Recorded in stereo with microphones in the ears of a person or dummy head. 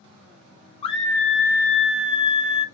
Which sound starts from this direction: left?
A scream, at 0.8 s.